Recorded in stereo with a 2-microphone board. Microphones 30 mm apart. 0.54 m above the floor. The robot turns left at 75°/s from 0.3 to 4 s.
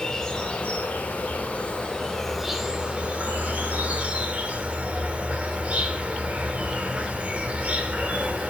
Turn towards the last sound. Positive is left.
turn(degrees=-125)